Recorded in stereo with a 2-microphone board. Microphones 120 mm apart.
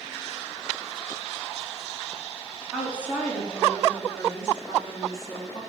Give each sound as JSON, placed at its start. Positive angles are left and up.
{"t": 2.7, "sound": "a woman speaking", "side_deg": 5, "distance_m": 4.5}